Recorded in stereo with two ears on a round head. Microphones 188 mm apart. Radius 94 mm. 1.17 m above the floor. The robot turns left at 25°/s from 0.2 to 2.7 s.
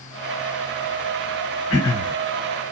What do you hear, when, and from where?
1.7 s throat clearing: 75° left (ahead or behind), 1.9 m; by 2.1 s 70° left (ahead or behind), 1.9 m